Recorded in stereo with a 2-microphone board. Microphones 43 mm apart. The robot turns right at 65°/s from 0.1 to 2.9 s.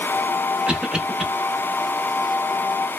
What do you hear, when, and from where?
0.7 s a cough: 20° right (ahead or behind), 0.8 m; by 1.2 s 10° right (ahead or behind), 0.8 m